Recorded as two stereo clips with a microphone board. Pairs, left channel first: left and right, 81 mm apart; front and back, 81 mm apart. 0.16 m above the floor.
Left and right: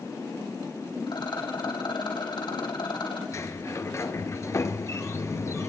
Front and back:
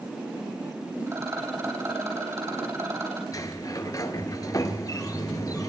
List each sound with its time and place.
1.1 s a rattle: 120° left, 4.5 m
3.3 s a sliding door: 40° left, 1.1 m